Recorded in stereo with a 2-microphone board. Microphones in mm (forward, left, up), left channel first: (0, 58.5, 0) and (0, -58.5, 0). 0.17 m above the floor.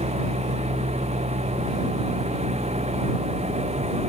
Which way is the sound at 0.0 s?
70° right (ahead or behind).